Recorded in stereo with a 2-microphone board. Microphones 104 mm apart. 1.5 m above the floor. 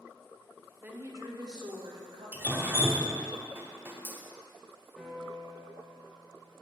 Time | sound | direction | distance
0.8 | a woman speaking | 20° right (ahead or behind) | 0.6 m
2.3 | dripping | 25° right (ahead or behind) | 0.5 m
5.0 | a piano | centre (ahead or behind) | 0.7 m